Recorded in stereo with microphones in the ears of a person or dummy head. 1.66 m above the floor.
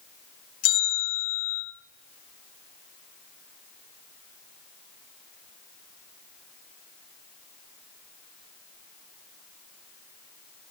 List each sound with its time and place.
0.6 s a bell: 75° left (ahead or behind), 3.5 m